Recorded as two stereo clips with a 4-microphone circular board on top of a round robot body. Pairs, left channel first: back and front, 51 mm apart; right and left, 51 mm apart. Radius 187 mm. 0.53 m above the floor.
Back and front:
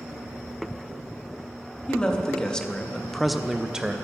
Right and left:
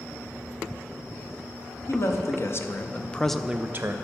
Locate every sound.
1.9 s a man speaking: 110° right, 1.2 m; by 3.9 s 70° left, 0.7 m